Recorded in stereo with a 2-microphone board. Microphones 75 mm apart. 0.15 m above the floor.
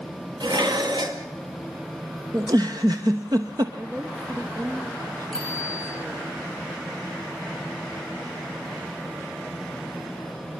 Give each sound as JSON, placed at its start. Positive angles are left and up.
{"t": 0.4, "sound": "dishes clattering", "side_deg": -65, "distance_m": 2.5}
{"t": 2.3, "sound": "a giggle", "side_deg": -55, "distance_m": 1.6}
{"t": 3.8, "sound": "a woman speaking", "side_deg": -45, "distance_m": 2.5}
{"t": 5.3, "sound": "a bicycle bell", "side_deg": 10, "distance_m": 9.5}